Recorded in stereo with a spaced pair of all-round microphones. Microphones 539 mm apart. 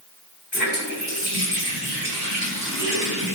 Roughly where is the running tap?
Left.